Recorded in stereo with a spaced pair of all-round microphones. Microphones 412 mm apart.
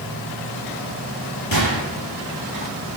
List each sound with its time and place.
1.5 s a gunshot: 55° left (ahead or behind), 4 m